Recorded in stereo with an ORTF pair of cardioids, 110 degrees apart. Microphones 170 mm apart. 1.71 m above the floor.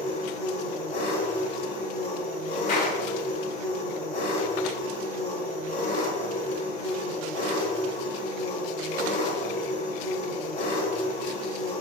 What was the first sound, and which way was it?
An engine running, 65° left.